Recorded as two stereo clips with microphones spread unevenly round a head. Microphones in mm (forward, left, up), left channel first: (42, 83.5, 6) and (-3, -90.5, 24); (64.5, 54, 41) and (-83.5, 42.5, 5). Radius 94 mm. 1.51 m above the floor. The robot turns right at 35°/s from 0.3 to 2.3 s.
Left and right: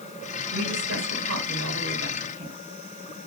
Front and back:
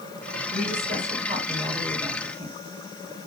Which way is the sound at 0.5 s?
135° right.